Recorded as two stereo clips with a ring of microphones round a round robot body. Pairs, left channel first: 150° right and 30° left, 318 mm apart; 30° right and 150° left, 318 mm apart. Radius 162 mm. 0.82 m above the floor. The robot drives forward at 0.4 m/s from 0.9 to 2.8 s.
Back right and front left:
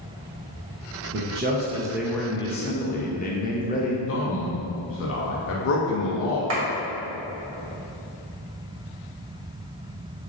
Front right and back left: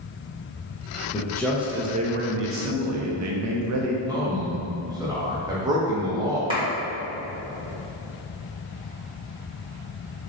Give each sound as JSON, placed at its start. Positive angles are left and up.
{"t": 1.1, "sound": "a man speaking", "azimuth_deg": 35, "distance_m": 0.5}
{"t": 4.1, "sound": "a man speaking", "azimuth_deg": -140, "distance_m": 0.6}
{"t": 6.5, "sound": "a clap", "azimuth_deg": 75, "distance_m": 1.1}